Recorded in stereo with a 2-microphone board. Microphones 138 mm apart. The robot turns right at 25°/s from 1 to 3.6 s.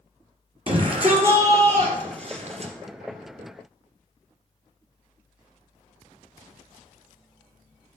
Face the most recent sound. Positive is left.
turn(degrees=-60)